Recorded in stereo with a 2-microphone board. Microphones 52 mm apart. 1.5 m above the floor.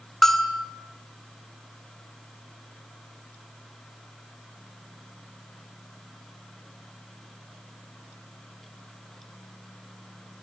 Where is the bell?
5° left (ahead or behind), 2.5 m.